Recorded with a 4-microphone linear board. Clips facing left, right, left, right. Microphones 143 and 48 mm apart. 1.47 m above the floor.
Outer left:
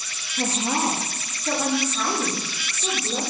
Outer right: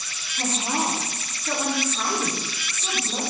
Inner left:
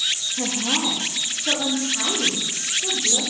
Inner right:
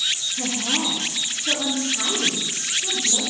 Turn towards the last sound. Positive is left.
turn(degrees=60)  # may be behind; listen again after turning